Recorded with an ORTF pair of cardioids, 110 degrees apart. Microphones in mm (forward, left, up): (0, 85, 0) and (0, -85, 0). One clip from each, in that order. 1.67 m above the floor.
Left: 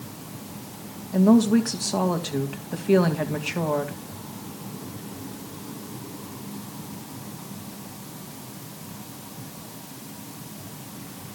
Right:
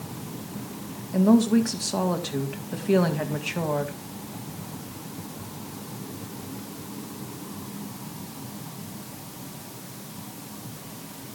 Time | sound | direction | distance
1.1 | a woman speaking | 5° left | 2 m